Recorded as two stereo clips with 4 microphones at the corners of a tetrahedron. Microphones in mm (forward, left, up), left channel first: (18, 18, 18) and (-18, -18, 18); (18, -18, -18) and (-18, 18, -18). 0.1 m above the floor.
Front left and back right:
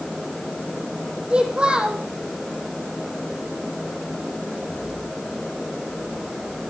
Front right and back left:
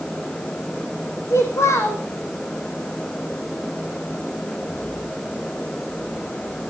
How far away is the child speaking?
About 3.5 m.